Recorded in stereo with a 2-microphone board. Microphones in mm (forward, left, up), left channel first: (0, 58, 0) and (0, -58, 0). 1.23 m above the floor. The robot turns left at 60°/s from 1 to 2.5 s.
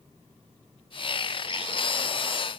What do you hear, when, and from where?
Only background noise.